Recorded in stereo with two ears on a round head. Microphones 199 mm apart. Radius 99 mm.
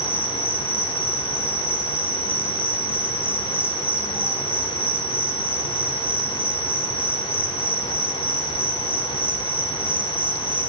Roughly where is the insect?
Centre.